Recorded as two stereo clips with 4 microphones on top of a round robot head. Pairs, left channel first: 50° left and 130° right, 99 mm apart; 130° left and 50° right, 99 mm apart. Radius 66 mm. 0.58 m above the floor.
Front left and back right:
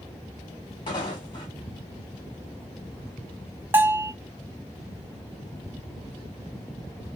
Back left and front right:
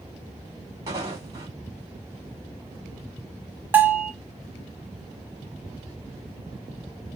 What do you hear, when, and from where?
0.9 s footsteps: 10° left, 1.0 m
3.7 s a bell: 95° right, 0.7 m